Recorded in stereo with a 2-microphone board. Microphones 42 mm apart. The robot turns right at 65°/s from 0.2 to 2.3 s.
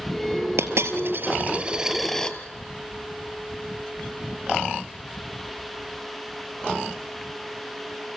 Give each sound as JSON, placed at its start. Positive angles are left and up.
{"t": 0.6, "sound": "a dropped coin", "azimuth_deg": -95, "distance_m": 1.4}